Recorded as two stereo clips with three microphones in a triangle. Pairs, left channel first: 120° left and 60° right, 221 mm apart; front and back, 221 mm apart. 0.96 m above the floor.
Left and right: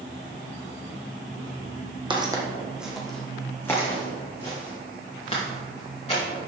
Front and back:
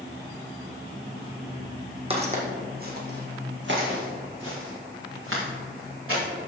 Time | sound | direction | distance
2.1 | footsteps | 125° right | 1.7 m